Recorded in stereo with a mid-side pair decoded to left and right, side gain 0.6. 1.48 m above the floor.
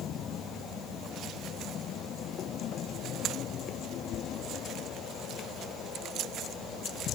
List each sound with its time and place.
Only background noise.